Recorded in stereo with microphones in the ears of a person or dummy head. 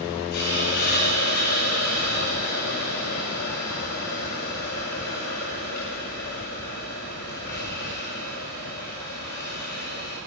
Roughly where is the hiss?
Left.